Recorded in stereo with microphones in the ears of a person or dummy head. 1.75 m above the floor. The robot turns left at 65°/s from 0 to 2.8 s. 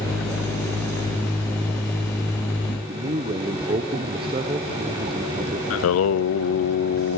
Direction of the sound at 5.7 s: 80° left.